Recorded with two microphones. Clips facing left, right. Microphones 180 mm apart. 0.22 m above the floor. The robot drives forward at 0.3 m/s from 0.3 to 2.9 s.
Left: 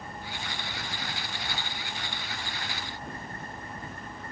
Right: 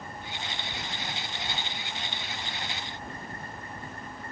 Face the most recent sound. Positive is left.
No sound to turn to.